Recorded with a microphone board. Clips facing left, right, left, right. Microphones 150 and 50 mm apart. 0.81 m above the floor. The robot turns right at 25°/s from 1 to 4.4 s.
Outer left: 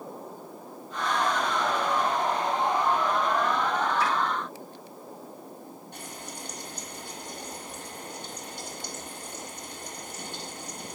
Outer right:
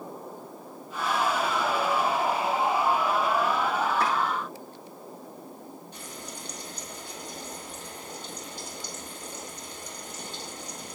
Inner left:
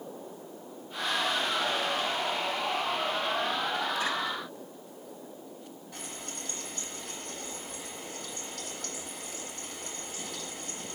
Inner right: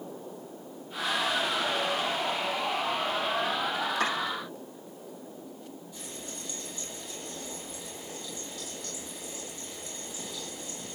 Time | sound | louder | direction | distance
4.0 | chopping | outer right 2 dB, inner right 6 dB | 55° right (ahead or behind) | 7 m
5.9 | frying | even, inner left 3 dB | 65° left (ahead or behind) | 8.5 m